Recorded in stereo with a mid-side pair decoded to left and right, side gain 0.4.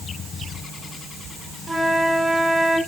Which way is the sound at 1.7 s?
25° right.